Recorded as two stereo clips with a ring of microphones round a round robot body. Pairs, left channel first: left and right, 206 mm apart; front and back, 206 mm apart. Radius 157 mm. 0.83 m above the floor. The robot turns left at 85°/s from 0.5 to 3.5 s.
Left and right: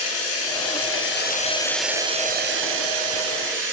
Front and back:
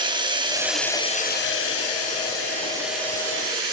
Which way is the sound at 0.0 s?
110° left.